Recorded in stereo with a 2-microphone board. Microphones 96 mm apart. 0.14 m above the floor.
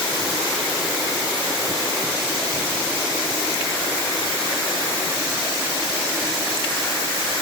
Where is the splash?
No splash in this recording.